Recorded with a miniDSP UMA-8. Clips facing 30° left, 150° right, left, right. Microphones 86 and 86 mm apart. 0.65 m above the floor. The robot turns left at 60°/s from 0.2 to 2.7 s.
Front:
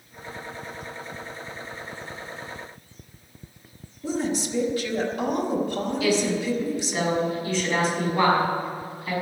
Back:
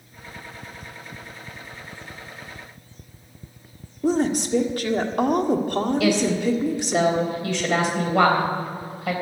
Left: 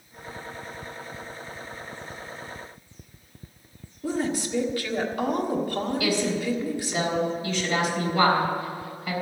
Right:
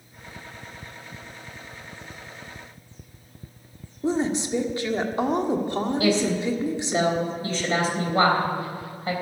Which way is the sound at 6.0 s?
145° right.